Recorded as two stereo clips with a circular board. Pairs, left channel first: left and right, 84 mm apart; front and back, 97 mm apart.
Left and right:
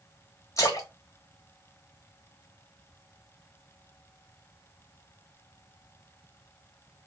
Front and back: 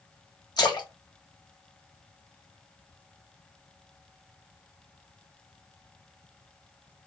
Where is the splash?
40° left, 1.4 m.